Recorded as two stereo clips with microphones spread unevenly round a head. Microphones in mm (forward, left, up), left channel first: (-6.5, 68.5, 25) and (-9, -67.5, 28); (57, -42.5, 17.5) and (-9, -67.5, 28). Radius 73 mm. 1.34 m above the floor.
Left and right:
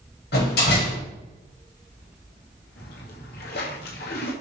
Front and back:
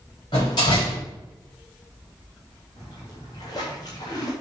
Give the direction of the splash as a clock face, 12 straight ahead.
9 o'clock.